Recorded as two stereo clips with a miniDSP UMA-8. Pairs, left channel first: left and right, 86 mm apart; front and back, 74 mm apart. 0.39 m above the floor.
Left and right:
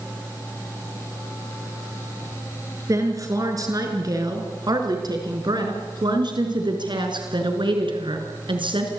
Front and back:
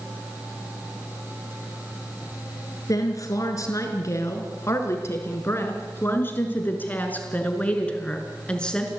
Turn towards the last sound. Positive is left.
turn(degrees=-80)